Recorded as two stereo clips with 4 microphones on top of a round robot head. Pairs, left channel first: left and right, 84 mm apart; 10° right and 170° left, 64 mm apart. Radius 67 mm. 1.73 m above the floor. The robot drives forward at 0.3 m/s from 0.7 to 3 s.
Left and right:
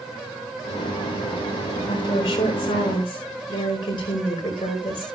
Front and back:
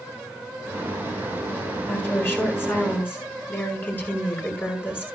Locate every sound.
1.9 s a woman speaking: 50° left, 6.5 m